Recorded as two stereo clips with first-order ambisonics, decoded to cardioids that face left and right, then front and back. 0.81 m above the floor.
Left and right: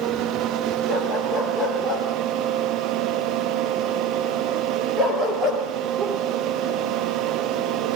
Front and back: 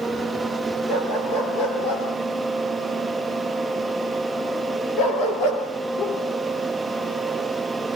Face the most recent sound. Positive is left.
turn(degrees=-40)